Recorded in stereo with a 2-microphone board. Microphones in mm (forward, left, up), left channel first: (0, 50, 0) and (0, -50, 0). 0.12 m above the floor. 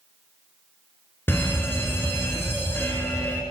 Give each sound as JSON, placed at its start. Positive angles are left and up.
{"t": 1.3, "sound": "a fire alarm", "side_deg": 20, "distance_m": 2.0}